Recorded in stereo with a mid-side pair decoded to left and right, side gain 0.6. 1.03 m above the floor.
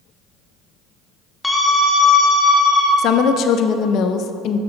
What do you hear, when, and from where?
1.4 s a scream: 15° left, 1.1 m; by 2.9 s straight ahead, 2.5 m
3.0 s a woman speaking: 60° left, 0.5 m